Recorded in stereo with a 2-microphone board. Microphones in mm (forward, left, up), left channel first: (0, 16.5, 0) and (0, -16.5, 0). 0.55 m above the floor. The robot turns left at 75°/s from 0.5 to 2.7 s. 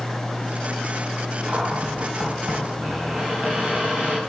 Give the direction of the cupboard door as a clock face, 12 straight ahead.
1 o'clock.